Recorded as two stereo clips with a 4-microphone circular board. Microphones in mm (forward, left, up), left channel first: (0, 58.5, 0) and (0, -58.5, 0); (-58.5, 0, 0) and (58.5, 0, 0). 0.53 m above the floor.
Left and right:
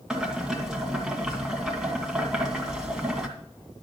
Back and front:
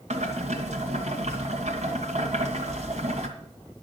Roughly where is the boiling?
Ahead.